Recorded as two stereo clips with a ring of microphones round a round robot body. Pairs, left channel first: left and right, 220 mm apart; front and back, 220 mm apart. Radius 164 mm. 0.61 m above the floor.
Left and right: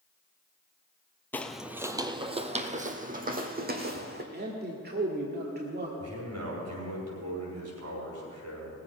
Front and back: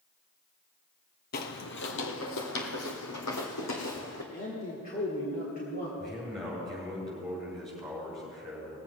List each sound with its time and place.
1.3 s footsteps: 10° left, 0.8 m; by 4.2 s 45° right, 2 m
4.3 s a man speaking: 50° right, 1.7 m
6.0 s a man speaking: 90° right, 5.5 m